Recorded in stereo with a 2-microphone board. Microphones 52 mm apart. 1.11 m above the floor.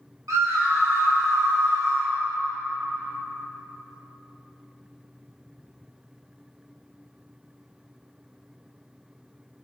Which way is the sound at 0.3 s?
80° right.